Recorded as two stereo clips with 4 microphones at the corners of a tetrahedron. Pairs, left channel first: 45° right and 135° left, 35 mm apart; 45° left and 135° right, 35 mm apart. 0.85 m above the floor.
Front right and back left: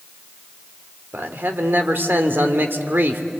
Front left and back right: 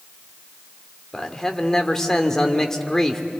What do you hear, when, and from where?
1.1 s a man speaking: 120° left, 2 m